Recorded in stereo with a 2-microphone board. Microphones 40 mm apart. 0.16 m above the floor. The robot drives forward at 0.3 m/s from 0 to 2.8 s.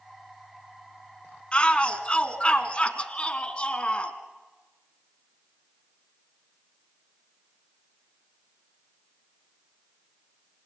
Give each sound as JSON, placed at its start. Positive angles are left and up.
{"t": 1.5, "sound": "a shout", "side_deg": 25, "distance_m": 1.6}